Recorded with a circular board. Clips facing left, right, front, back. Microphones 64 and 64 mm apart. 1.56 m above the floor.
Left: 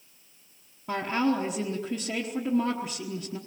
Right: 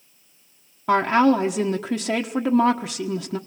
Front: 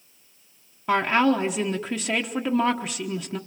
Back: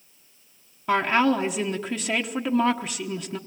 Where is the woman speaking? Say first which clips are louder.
Right 9 dB, even; 85° right, 1.2 m.